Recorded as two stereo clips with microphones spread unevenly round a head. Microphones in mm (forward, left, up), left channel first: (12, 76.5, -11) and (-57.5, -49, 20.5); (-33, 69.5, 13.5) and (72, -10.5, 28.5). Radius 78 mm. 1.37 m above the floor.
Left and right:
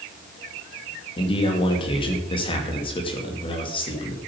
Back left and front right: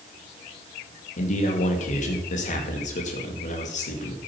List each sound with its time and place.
1.2 s a man speaking: 115° left, 2.5 m